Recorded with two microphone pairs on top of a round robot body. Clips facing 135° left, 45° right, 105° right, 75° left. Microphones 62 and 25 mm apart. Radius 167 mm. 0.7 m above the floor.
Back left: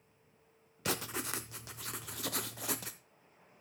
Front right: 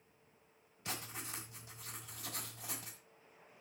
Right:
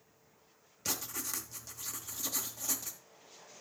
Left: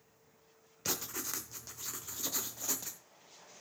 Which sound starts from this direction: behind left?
Writing, at 0.8 s.